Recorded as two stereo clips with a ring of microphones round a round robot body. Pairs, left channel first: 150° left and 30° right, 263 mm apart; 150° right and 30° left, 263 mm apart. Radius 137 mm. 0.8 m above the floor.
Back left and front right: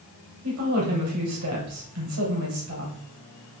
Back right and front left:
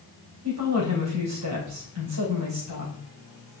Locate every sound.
0.4 s a woman speaking: 5° left, 3.5 m